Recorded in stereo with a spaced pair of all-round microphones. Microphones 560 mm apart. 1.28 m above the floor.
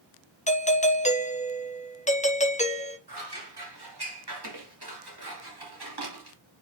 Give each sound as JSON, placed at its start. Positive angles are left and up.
{"t": 0.5, "sound": "a doorbell", "side_deg": 15, "distance_m": 0.8}
{"t": 3.1, "sound": "scissors", "side_deg": -45, "distance_m": 2.5}